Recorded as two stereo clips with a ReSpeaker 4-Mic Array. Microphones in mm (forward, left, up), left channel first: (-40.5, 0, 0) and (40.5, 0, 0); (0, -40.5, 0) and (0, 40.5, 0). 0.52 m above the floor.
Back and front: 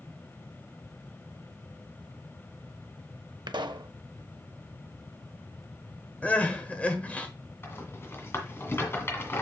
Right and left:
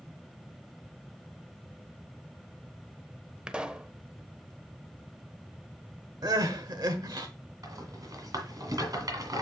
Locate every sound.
3.5 s a pop: 10° left, 0.5 m
6.2 s crying: 110° left, 1.1 m
7.6 s a rattle: 120° left, 1.8 m